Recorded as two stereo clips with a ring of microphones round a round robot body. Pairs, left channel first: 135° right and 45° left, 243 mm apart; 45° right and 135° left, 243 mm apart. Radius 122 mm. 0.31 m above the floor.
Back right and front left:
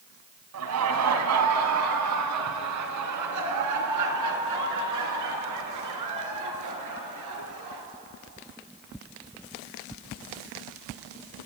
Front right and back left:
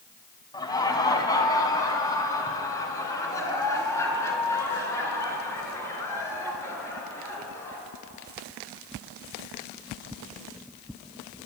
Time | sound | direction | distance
0.5 | laughter | 30° left | 2.5 m